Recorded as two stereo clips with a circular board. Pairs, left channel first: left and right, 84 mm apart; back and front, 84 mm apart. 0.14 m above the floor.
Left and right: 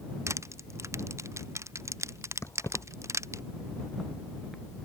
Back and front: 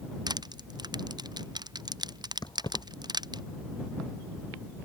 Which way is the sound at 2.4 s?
145° left.